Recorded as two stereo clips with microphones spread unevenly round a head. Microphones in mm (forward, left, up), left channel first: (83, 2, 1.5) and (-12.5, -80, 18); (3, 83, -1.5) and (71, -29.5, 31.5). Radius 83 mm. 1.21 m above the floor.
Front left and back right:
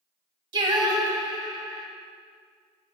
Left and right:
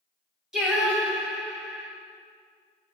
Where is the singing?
125° right, 1.3 m.